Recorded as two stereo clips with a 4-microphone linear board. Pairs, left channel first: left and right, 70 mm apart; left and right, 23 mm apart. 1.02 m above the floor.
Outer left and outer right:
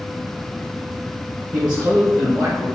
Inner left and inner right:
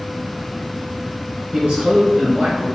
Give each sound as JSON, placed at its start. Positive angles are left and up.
{"t": 1.5, "sound": "a man speaking", "side_deg": -65, "distance_m": 0.9}